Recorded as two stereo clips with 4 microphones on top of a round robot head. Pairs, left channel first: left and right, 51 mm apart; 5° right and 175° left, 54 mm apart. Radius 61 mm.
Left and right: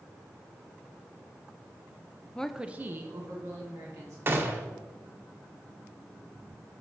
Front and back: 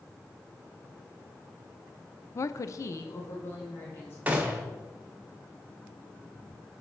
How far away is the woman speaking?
About 0.6 m.